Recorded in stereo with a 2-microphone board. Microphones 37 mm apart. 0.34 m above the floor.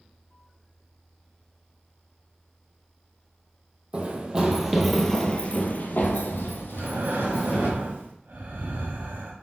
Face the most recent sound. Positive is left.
turn(degrees=-65)  # may be behind; listen again after turning